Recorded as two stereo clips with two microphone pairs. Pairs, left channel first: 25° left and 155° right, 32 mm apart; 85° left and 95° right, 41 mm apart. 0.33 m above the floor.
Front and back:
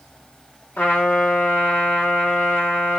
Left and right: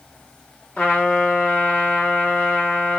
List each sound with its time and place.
0.8 s a trumpet: 25° left, 1.7 m